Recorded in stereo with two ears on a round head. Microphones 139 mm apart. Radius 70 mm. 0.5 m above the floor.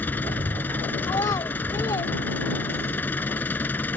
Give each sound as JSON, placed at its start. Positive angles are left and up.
{"t": 0.0, "sound": "an engine running", "side_deg": 10}
{"t": 1.0, "sound": "a child speaking", "side_deg": 25}